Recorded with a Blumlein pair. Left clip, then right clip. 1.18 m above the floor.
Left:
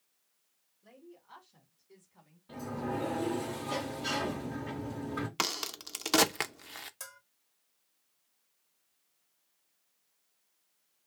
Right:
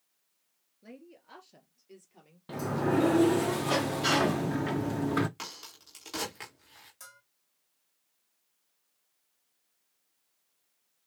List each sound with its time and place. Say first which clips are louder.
0.8 s a woman speaking: right 4 dB; 45° right, 2.5 m; by 2.4 s 40° right, 3.5 m
2.5 s a sliding door: right 8 dB; 55° right, 0.6 m
5.4 s a crack: left 9 dB; 55° left, 0.7 m
7.0 s a bell: left 3 dB; 20° left, 1.1 m